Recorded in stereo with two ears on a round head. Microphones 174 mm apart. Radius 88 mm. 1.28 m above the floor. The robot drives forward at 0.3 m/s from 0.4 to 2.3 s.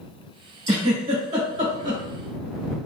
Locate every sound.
0.7 s a giggle: 30° right (ahead or behind), 1.8 m; by 2.0 s 40° right (ahead or behind), 1.5 m